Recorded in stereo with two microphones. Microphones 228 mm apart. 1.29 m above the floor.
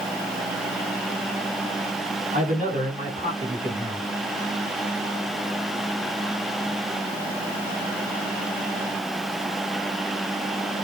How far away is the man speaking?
About 4 m.